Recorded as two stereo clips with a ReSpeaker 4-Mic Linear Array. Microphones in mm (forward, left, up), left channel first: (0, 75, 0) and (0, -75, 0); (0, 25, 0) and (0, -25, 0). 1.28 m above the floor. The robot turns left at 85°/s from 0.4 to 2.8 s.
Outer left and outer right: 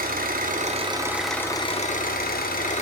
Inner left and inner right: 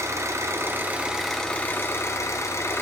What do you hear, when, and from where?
0.0 s an engine running: 105° right, 0.7 m; by 2.8 s 50° left, 0.7 m